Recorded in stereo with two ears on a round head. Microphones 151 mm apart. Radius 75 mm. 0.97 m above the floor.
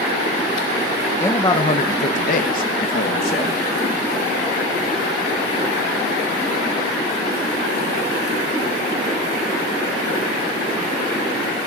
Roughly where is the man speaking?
Centre.